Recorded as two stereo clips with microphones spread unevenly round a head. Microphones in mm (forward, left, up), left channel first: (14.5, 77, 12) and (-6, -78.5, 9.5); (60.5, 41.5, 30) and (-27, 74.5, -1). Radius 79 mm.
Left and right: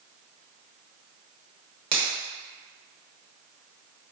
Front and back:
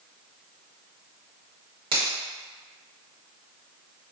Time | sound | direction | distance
1.9 | a finger snap | 155° right | 0.9 m